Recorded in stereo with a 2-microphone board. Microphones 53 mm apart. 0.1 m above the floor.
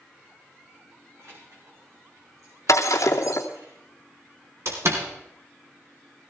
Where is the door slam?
55° right (ahead or behind), 3.5 m.